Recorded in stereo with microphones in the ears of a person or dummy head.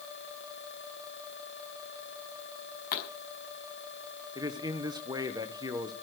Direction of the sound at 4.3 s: 30° right (ahead or behind).